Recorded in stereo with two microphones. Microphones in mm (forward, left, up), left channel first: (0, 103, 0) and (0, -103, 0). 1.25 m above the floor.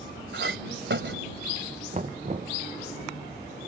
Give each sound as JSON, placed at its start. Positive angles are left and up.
{"t": 0.3, "sound": "a clink", "side_deg": -70}
{"t": 1.9, "sound": "knocking", "side_deg": -40}